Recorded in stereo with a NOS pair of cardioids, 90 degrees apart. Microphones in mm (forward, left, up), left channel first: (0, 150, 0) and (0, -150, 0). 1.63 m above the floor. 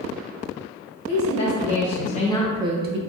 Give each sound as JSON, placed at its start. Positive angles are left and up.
{"t": 1.1, "sound": "a woman speaking", "azimuth_deg": 60, "distance_m": 1.3}